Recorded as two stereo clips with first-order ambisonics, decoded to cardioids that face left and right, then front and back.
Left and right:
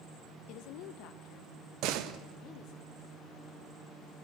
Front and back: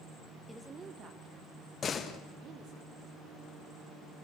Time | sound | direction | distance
0.5 | a woman speaking | 90° left | 0.8 m
1.8 | a door slam | 65° right | 1.4 m